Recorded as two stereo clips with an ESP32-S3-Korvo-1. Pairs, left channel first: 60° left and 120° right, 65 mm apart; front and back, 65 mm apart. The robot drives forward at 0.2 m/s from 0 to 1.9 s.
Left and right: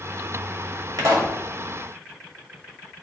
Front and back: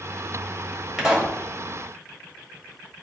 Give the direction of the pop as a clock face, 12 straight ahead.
3 o'clock.